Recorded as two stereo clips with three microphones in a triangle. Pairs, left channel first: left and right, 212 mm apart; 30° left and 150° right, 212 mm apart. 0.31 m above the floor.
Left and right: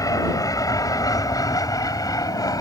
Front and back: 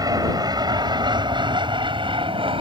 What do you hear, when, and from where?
0.0 s an aircraft: 150° left; by 2.6 s 155° left